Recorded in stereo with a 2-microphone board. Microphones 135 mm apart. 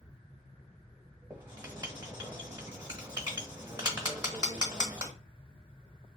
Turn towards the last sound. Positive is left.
turn(degrees=-35)  # may be behind; listen again after turning